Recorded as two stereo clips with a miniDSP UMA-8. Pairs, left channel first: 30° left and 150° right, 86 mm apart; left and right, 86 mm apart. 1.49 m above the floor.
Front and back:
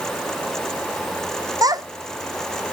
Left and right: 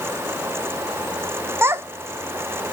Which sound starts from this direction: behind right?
A child speaking, at 1.6 s.